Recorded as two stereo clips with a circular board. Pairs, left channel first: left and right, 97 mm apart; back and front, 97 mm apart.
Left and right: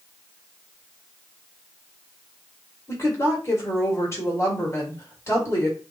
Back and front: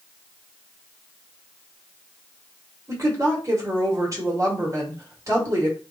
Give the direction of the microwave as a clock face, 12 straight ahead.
No microwave in this recording.